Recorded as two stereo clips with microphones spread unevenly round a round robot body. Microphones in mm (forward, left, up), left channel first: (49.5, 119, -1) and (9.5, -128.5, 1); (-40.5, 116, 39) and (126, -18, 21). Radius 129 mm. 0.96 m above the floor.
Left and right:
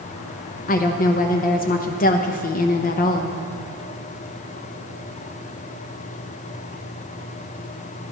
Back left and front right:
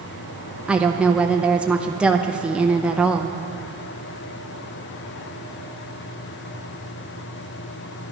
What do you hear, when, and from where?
0.7 s a woman speaking: 40° left, 0.6 m